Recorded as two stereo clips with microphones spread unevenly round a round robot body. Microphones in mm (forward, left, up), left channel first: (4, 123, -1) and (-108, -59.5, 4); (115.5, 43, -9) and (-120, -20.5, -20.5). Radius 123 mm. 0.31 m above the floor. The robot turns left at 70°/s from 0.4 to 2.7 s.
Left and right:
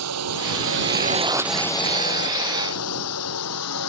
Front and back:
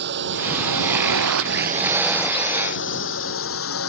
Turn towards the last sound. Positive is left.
turn(degrees=50)